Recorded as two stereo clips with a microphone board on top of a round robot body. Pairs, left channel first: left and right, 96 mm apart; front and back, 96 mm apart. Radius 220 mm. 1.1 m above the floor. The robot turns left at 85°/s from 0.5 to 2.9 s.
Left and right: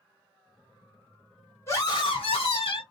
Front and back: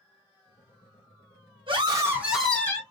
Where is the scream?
150° left, 2.5 m; by 2.8 s 55° left, 2.5 m.